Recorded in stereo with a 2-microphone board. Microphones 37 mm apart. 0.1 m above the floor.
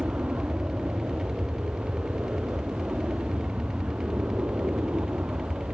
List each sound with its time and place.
0.0 s an aircraft: 45° right (ahead or behind); by 5.7 s 55° right (ahead or behind)